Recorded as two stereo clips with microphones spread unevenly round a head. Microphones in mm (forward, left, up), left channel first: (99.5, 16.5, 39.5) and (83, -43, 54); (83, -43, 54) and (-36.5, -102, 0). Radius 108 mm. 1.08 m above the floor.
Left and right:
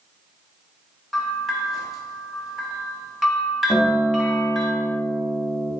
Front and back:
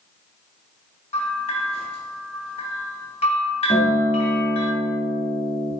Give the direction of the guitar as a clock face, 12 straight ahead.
12 o'clock.